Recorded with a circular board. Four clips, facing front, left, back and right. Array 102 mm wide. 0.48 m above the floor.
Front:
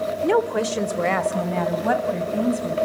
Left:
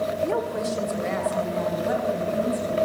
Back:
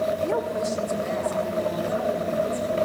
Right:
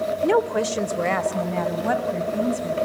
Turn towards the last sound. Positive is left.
turn(degrees=-30)